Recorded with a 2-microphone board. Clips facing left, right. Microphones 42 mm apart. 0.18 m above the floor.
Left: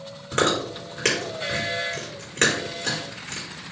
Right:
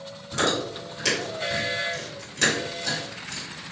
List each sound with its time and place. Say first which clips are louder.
0.3 s chewing: left 3 dB; 50° left (ahead or behind), 3.5 m